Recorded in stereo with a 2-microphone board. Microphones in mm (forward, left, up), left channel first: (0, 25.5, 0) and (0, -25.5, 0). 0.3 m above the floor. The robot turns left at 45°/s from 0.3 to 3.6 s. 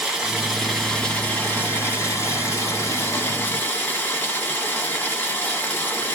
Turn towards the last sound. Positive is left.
turn(degrees=45)